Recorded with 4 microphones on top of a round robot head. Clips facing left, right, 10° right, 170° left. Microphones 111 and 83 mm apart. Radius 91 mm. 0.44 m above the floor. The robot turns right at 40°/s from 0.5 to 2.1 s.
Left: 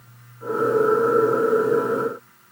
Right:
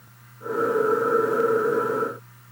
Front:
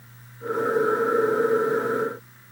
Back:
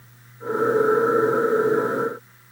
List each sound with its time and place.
Only background noise.